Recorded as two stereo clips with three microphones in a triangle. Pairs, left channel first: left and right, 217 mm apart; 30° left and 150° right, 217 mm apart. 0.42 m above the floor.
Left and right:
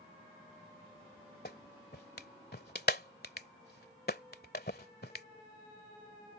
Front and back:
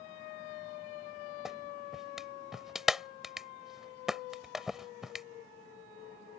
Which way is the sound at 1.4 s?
120° left.